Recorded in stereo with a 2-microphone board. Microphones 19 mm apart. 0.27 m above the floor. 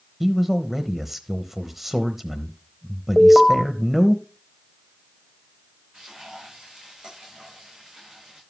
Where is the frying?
45° right (ahead or behind), 8 m.